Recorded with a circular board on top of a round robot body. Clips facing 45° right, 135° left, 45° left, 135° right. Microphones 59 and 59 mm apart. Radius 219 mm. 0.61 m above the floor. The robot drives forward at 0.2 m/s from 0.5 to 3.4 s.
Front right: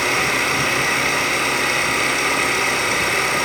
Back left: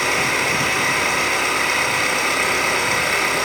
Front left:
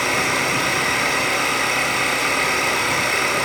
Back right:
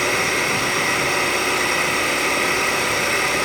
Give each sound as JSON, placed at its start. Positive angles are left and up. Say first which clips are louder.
{"t": 0.0, "sound": "an engine running", "louder": "even, even", "azimuth_deg": 65, "distance_m": 1.4}